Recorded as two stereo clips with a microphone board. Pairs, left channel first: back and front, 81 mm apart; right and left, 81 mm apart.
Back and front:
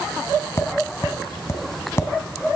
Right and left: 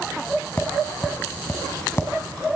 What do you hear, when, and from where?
0.6 s tapping: 140° right, 1.4 m